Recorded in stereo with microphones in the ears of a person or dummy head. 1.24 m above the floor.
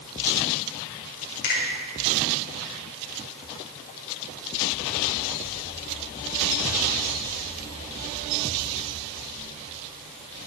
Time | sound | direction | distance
1.4 | a finger snap | 50° left (ahead or behind) | 3 m